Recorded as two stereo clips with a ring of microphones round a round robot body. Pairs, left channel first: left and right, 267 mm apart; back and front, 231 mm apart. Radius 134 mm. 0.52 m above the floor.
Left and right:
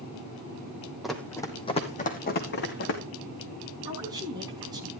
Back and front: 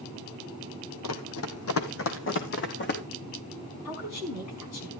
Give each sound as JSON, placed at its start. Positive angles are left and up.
{"t": 1.0, "sound": "running footsteps", "azimuth_deg": 180, "distance_m": 1.6}
{"t": 3.9, "sound": "a woman speaking", "azimuth_deg": -165, "distance_m": 5.0}